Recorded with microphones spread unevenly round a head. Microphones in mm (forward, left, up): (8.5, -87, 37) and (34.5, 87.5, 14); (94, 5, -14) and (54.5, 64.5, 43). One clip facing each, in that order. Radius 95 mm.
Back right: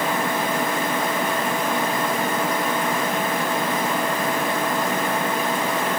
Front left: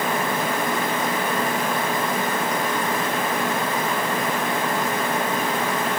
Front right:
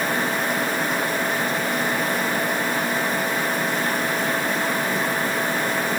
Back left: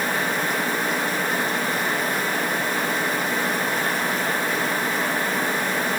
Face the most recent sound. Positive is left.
No sound to turn to.